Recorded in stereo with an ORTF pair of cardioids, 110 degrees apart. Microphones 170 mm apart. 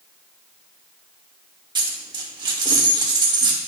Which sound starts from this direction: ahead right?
A dropped coin, at 1.8 s.